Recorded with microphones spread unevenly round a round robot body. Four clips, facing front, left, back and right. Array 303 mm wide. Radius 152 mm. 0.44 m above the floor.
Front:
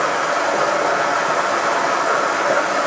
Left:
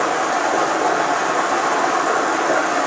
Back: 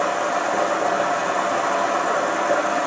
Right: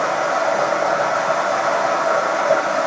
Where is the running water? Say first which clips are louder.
Even, front 3 dB; 125° left, 3 m.